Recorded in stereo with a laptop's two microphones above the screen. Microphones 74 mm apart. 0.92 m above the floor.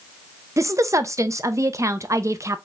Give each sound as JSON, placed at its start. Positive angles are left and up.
{"t": 0.6, "sound": "a woman speaking", "side_deg": -45, "distance_m": 0.6}